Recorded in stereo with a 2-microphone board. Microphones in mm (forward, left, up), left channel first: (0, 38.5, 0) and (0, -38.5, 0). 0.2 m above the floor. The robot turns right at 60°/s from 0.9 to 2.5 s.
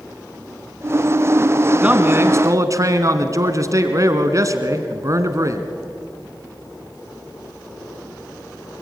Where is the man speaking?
160° right, 1.8 m; by 5.7 s 120° right, 1.8 m.